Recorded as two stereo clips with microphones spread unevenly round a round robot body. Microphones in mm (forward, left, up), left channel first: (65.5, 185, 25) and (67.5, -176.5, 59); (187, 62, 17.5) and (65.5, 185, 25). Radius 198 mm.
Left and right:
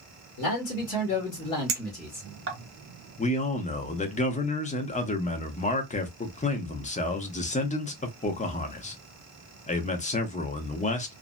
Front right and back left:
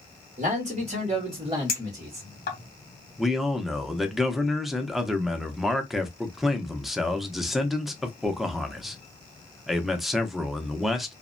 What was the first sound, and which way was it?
A man speaking, 105° left.